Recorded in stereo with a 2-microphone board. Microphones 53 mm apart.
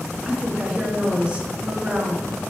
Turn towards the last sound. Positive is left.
turn(degrees=-20)  # may be behind; listen again after turning